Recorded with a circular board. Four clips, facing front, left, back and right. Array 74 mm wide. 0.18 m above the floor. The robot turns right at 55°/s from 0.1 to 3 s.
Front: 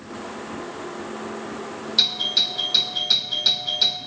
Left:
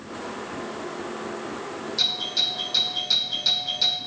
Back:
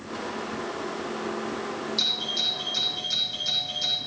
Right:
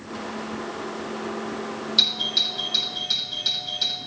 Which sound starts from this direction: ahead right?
A doorbell, at 2.0 s.